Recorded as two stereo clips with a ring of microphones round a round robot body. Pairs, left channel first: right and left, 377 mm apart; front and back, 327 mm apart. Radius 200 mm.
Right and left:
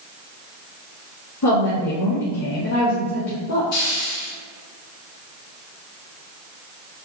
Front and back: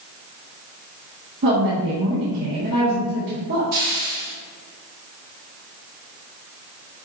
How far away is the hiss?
About 2 m.